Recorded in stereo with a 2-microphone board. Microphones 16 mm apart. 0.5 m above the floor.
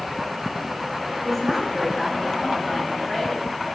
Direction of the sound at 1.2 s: 5° left (ahead or behind).